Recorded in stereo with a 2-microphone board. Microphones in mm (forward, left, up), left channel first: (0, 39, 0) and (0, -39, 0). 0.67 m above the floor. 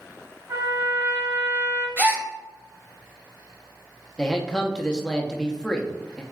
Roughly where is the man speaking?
Centre.